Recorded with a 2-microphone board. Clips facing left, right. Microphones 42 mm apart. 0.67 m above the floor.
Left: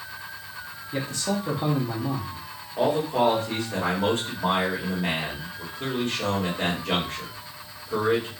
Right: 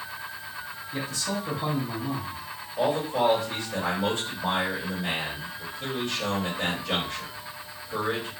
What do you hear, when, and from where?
0.9 s a man speaking: 35° left (ahead or behind), 0.7 m
2.8 s a man speaking: 50° left (ahead or behind), 1.5 m